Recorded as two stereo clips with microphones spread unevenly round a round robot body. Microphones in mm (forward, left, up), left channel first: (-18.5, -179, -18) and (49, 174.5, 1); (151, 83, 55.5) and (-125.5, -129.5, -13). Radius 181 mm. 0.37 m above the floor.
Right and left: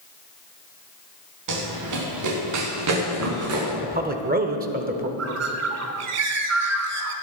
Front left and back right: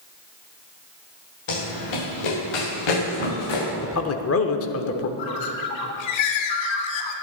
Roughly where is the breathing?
No breathing in this recording.